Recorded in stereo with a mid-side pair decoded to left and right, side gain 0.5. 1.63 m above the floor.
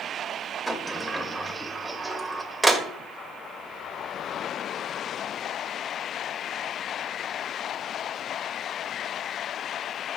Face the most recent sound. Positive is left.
turn(degrees=-10)